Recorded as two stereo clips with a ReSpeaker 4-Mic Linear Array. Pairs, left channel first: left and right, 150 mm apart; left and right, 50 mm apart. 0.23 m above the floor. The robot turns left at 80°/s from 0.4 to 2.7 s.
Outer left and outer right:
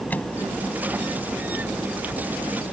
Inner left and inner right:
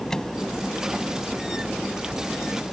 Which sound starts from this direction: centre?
A microwave, at 0.1 s.